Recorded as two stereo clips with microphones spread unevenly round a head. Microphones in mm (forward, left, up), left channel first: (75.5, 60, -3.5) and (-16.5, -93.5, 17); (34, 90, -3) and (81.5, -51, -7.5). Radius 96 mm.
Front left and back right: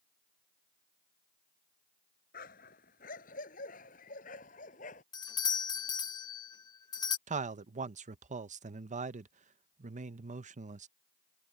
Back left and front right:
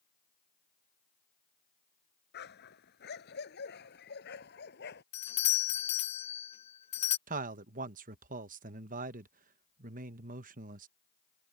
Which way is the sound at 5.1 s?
110° left.